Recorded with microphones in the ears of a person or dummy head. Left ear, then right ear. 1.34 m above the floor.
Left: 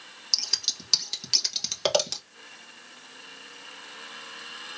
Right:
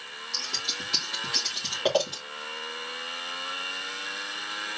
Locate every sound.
0.3 s scissors: 60° left (ahead or behind), 1.6 m